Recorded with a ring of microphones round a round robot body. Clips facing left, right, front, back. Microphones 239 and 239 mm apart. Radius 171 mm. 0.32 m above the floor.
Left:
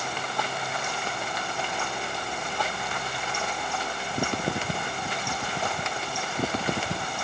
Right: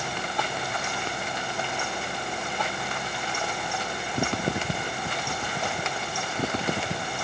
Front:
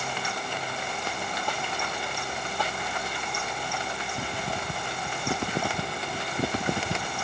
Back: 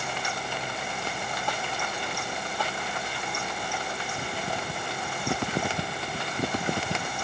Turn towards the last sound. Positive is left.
No sound to turn to.